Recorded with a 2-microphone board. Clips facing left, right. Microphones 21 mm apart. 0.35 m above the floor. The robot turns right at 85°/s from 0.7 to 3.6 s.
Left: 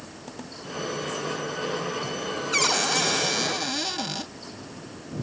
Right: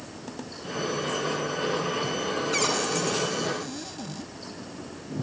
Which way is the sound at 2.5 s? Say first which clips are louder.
Left 5 dB; 10° left.